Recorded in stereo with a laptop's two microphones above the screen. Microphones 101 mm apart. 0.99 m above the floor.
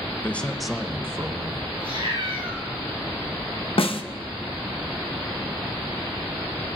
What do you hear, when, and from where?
0.2 s a man speaking: 15° left (ahead or behind), 0.9 m; by 1.7 s 45° right (ahead or behind), 1.0 m
1.8 s a cat meowing: 60° right (ahead or behind), 2.5 m
3.8 s a snare drum: 65° left (ahead or behind), 0.8 m